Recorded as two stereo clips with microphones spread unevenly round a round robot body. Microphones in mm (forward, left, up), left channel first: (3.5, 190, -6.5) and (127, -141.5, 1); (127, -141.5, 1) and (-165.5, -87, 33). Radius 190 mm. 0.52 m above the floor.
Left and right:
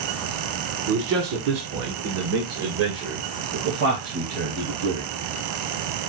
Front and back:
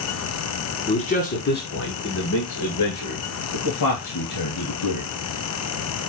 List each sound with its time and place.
0.9 s a man speaking: 65° right, 1.2 m; by 5.1 s 20° right, 3.5 m